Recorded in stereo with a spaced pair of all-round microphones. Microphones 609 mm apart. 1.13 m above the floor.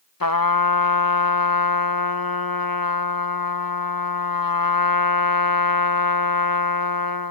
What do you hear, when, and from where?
0.2 s a trumpet: 35° left (ahead or behind)